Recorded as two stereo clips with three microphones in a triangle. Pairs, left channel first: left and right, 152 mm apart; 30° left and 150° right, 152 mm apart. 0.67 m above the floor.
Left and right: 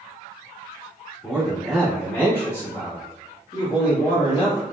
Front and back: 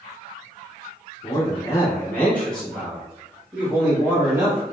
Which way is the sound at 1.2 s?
10° right.